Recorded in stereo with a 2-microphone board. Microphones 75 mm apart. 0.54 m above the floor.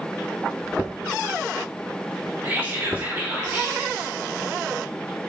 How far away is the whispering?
About 1.4 m.